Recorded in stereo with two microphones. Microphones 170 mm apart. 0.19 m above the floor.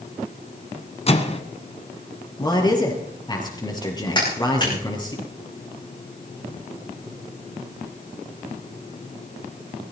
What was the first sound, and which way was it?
A microwave, 35° left (ahead or behind).